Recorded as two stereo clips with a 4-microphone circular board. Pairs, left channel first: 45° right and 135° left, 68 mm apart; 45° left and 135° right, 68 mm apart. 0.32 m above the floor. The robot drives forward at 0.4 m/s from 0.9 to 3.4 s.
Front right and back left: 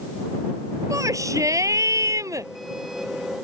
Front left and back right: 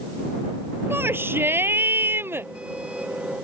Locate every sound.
0.9 s a shout: 170° left